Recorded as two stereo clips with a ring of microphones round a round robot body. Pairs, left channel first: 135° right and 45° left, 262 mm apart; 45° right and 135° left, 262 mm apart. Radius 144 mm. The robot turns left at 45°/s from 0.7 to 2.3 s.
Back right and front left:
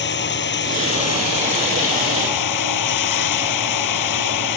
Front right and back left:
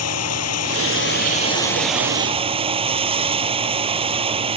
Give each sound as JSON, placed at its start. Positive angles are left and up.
{"t": 0.0, "sound": "running water", "azimuth_deg": -80}